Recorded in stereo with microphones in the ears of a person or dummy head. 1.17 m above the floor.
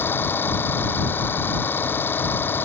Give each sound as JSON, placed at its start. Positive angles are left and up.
{"t": 0.0, "sound": "an engine running", "side_deg": 5}